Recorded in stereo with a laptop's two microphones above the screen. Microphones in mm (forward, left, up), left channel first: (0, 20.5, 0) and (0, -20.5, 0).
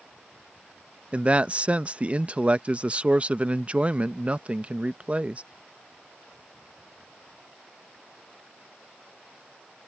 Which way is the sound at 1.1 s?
30° right (ahead or behind).